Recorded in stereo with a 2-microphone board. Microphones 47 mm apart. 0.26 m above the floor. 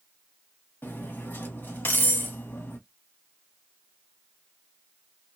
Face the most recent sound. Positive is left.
turn(degrees=45)  # may be behind; listen again after turning